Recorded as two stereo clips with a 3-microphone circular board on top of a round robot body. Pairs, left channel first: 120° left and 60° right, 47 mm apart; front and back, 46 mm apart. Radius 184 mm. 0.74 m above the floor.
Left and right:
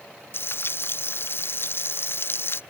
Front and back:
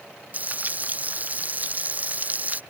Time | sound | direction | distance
0.3 | frying | 135° left | ?